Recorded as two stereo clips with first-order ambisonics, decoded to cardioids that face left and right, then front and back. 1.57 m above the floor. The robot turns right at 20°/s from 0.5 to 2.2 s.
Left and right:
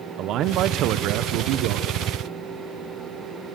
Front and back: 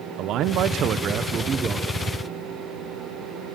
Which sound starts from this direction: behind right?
A man speaking, at 0.2 s.